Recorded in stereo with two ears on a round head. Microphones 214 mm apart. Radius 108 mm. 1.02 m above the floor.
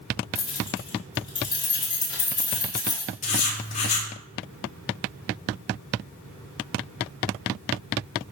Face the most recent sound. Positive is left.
turn(degrees=30)  # may be behind; listen again after turning